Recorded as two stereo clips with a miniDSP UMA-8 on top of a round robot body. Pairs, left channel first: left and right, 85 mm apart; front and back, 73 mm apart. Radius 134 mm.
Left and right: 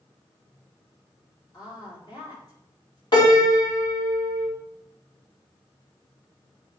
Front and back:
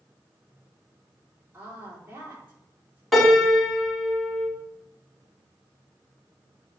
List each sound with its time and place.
1.5 s a woman speaking: 120° left, 3 m
3.1 s a piano: 90° left, 2.5 m